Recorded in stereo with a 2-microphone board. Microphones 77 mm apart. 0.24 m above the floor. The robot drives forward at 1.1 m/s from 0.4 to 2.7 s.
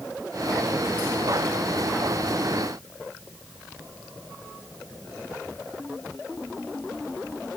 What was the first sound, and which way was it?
Only background noise.